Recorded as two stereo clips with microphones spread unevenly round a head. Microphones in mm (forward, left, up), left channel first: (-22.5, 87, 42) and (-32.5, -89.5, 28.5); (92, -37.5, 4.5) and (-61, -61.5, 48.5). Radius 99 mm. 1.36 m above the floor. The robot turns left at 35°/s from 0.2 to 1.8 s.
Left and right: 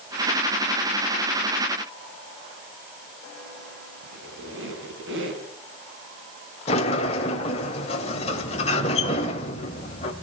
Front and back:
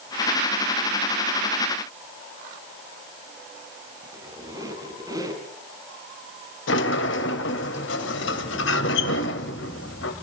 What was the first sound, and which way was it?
A squeak, 110° right.